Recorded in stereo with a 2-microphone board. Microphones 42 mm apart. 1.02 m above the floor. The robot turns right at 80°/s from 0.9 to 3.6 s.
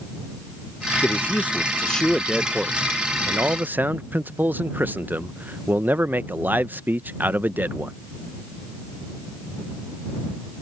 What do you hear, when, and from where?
1.0 s a man speaking: 80° left; by 8.0 s 75° right